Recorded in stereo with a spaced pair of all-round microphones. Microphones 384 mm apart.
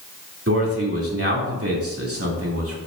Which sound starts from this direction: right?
A man speaking, at 0.5 s.